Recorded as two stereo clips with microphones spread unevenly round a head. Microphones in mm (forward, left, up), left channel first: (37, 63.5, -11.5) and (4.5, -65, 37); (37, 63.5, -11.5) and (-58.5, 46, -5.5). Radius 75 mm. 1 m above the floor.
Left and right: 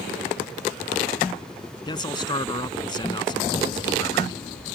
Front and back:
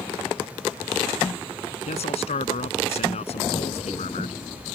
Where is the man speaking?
15° left.